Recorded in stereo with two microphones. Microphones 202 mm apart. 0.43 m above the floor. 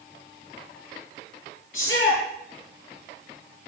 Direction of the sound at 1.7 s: 85° left.